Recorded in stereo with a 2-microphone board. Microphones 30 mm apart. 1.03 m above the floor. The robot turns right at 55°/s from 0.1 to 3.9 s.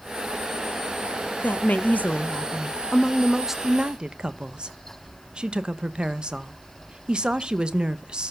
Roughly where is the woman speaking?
Left.